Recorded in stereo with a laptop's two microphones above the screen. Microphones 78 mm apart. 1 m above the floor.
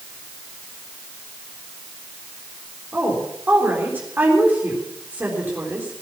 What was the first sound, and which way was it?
A woman speaking, 20° right (ahead or behind).